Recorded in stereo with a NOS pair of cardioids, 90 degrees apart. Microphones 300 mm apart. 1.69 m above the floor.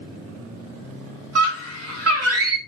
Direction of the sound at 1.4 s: 50° right.